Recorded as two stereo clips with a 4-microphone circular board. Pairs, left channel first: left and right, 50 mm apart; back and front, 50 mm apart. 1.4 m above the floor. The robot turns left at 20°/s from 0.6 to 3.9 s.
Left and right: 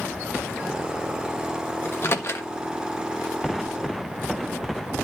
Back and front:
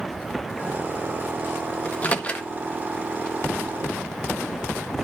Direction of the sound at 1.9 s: 125° left.